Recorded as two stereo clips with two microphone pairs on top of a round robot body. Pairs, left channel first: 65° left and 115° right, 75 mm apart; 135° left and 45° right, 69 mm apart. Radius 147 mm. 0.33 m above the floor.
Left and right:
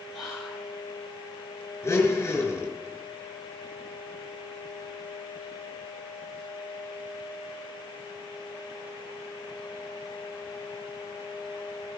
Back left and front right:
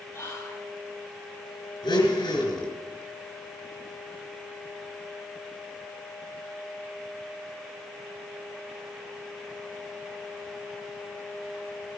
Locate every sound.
0.1 s whispering: 155° left, 1.9 m
1.8 s a blender: 125° left, 4 m